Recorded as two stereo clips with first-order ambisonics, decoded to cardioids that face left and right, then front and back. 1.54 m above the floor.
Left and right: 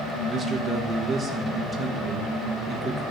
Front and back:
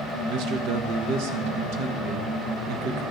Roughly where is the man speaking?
Behind.